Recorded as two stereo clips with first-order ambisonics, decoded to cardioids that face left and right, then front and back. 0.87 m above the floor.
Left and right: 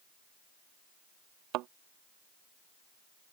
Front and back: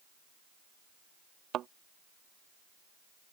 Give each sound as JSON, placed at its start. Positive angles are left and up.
{"t": 1.5, "sound": "a thud", "azimuth_deg": -125}